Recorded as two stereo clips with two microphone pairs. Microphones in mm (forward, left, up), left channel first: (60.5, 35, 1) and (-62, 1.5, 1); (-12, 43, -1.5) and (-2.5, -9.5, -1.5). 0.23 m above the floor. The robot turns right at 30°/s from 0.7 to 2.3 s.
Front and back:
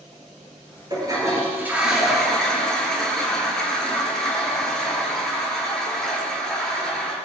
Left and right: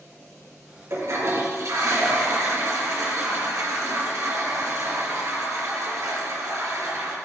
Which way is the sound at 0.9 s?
110° right.